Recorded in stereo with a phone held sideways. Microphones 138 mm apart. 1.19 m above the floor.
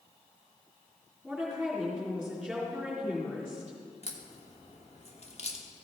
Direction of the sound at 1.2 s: Centre (ahead or behind).